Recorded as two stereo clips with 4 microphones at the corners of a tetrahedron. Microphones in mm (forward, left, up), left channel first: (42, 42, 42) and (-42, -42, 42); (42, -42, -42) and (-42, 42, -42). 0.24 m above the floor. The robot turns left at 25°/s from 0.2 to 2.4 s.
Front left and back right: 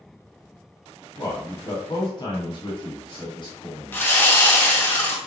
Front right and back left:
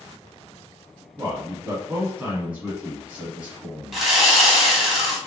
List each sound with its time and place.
1.2 s a man speaking: 95° left, 1.4 m; by 4.0 s 65° left, 1.4 m
3.9 s sawing: 55° left, 0.9 m